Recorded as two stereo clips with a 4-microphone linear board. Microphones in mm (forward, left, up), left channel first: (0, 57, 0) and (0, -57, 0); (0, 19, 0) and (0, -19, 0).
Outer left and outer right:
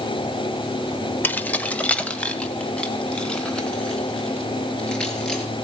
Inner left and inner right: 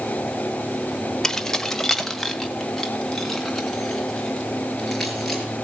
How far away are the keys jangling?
About 1.0 m.